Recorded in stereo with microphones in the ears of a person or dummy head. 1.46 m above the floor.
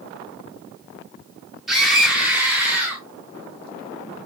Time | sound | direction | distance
1.7 | a scream | centre (ahead or behind) | 5 m